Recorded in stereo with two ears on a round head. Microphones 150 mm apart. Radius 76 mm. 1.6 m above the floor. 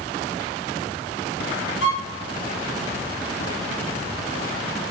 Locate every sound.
1.8 s a violin: 80° left, 1.8 m